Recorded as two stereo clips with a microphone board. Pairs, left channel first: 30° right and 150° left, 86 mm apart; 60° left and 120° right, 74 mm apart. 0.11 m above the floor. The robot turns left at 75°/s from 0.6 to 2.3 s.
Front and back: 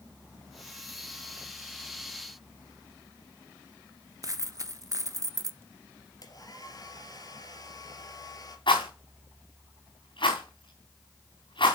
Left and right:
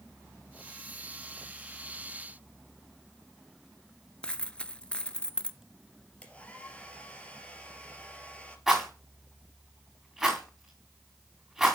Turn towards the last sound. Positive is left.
turn(degrees=-35)